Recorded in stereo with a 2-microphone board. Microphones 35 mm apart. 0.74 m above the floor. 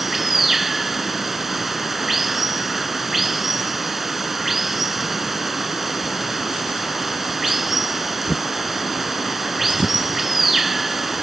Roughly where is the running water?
Centre.